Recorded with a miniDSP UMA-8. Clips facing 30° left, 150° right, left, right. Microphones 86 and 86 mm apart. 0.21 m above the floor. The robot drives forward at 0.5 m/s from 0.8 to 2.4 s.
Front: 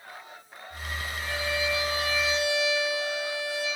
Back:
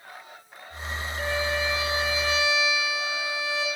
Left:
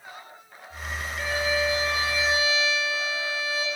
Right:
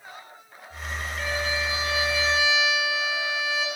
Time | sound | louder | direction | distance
1.2 | a violin | back 4 dB, left 3 dB | 175° left | 7.5 m